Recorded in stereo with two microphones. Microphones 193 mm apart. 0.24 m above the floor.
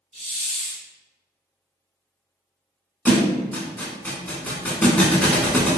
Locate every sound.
0.1 s a hiss: 35° left (ahead or behind), 0.7 m
3.0 s a thud: 10° left (ahead or behind), 0.6 m